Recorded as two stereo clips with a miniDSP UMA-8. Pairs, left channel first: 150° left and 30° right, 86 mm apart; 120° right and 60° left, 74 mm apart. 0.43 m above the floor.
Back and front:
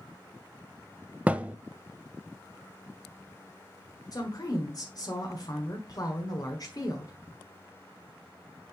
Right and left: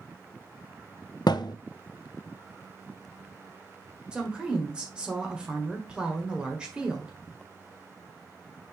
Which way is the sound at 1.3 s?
105° right.